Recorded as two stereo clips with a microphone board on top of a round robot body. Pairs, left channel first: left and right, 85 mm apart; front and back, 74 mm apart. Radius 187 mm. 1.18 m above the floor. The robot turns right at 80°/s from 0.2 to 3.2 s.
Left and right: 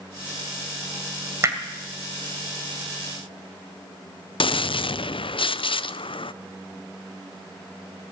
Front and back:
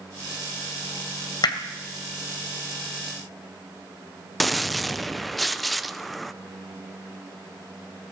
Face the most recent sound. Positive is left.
turn(degrees=90)